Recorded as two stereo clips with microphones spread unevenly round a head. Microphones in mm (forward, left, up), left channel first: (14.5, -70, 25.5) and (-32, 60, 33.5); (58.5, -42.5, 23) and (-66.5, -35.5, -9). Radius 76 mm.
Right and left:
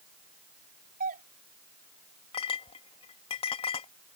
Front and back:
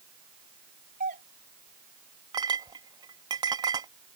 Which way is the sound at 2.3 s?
125° right.